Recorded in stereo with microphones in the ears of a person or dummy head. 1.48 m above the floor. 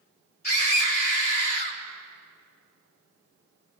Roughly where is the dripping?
I don't hear dripping.